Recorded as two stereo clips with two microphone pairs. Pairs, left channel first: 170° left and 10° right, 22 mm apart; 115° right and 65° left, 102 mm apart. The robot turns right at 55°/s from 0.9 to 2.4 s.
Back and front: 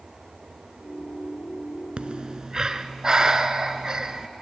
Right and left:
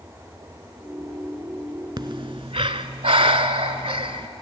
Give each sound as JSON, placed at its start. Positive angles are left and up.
{"t": 2.0, "sound": "breathing", "azimuth_deg": 20, "distance_m": 0.7}